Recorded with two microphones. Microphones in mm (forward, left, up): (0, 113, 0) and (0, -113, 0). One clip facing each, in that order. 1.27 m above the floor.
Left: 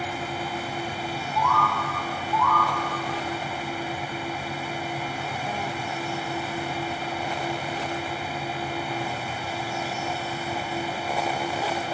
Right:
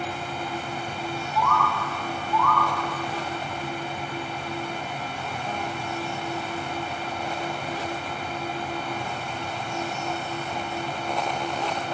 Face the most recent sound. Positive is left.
turn(degrees=20)  # may be behind; listen again after turning